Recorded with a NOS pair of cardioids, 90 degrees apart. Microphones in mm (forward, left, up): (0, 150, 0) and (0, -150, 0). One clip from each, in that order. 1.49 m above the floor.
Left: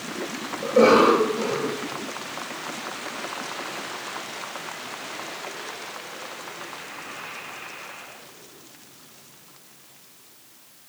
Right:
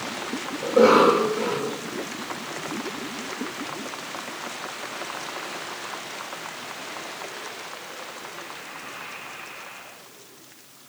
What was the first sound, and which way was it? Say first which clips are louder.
A cough: even; 10° right.